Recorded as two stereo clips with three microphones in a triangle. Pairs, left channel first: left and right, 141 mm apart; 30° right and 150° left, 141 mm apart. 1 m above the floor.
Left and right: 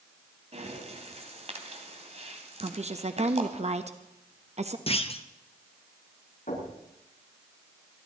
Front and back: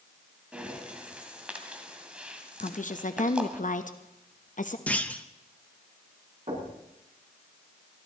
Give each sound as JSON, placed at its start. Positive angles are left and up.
{"t": 0.5, "sound": "breathing", "azimuth_deg": -130, "distance_m": 1.9}
{"t": 2.6, "sound": "a woman speaking", "azimuth_deg": -50, "distance_m": 1.0}
{"t": 4.9, "sound": "a clunk", "azimuth_deg": 50, "distance_m": 0.8}
{"t": 6.5, "sound": "knocking", "azimuth_deg": 115, "distance_m": 8.5}